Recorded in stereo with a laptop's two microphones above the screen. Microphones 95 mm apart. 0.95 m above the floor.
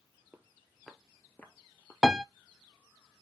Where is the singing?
No singing in this recording.